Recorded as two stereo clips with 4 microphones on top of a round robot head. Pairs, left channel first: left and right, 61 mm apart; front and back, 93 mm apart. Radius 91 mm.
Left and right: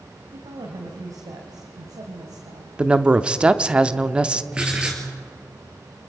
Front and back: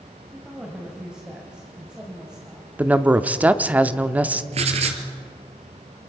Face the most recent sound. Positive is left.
turn(degrees=-170)